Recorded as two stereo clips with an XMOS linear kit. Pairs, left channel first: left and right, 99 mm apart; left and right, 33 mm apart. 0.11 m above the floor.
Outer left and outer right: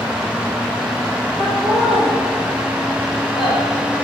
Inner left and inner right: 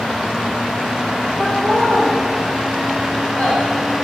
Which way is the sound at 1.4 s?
50° left (ahead or behind).